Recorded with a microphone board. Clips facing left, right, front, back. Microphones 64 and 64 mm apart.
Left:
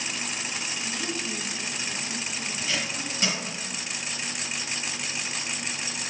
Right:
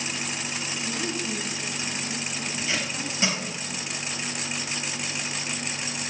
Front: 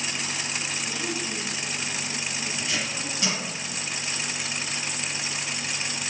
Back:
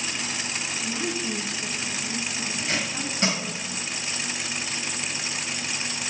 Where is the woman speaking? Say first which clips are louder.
Right 3 dB, back 2 dB; 125° right, 1.3 m; by 3.6 s 145° right, 2.5 m.